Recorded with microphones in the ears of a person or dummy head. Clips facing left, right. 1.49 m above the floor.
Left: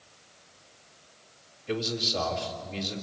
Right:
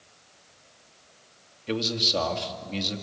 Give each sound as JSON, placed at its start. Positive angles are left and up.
{"t": 1.7, "sound": "a man speaking", "side_deg": -40, "distance_m": 2.5}